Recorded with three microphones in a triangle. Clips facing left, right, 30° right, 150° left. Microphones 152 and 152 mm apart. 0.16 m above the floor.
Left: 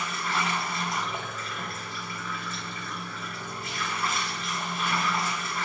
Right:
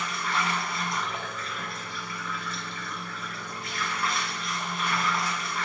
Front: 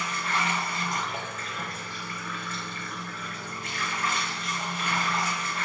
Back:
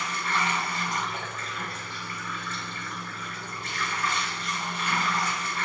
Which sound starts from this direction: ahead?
Running water, at 0.0 s.